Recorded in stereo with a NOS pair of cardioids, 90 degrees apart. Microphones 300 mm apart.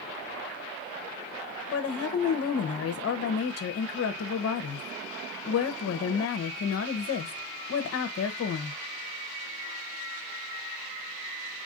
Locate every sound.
1.7 s a woman speaking: 50° left, 1.0 m